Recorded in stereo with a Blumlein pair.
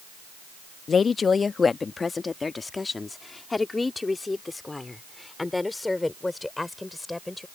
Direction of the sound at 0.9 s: 20° left.